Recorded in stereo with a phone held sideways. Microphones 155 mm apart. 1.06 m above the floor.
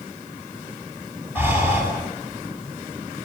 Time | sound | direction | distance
1.4 | breathing | 15° right (ahead or behind) | 8.5 m